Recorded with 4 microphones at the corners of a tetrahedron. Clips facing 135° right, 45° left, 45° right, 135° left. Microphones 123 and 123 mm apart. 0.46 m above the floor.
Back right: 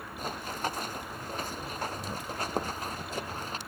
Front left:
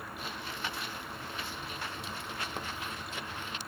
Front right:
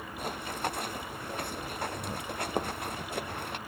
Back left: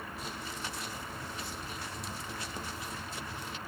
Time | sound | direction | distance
0.2 | running footsteps | 85° right | ?